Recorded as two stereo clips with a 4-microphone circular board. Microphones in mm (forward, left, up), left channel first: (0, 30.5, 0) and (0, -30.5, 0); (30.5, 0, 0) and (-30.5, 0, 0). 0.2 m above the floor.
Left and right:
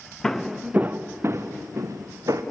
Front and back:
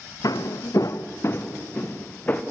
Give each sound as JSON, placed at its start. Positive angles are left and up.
{"t": 0.2, "sound": "footsteps", "azimuth_deg": 10, "distance_m": 0.8}